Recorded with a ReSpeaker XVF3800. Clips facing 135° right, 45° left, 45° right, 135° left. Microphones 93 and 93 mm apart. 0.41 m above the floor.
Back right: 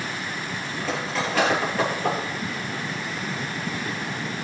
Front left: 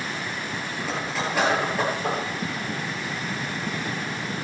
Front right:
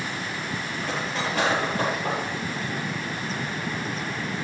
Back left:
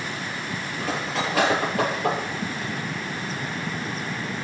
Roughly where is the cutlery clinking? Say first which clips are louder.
Back right 2 dB, back left 3 dB; behind left.